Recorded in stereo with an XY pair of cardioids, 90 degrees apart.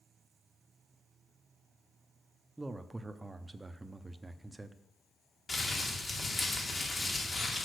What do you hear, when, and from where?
2.6 s a man speaking: 15° right, 0.7 m
5.5 s crumpling: 35° left, 2 m